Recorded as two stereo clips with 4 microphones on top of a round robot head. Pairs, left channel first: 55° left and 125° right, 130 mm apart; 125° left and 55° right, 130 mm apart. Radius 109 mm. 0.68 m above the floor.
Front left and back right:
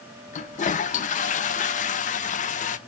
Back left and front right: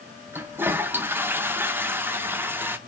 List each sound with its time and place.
0.3 s a toilet flushing: 25° left, 0.6 m